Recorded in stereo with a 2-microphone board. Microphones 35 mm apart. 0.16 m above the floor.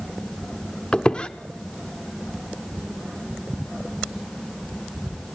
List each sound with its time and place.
0.9 s a squeak: 35° left (ahead or behind), 0.8 m